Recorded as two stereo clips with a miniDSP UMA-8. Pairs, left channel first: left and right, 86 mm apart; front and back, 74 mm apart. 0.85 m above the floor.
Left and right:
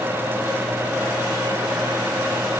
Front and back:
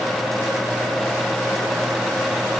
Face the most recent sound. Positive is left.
No sound to turn to.